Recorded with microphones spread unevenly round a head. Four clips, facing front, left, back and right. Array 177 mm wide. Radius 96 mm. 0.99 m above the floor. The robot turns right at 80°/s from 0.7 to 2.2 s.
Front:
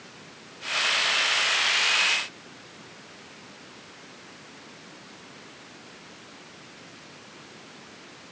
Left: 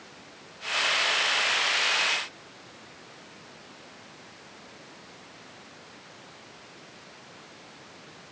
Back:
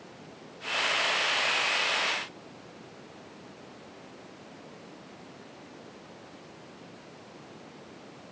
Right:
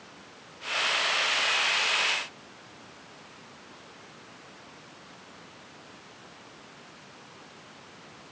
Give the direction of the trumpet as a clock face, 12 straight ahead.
I don't hear a trumpet.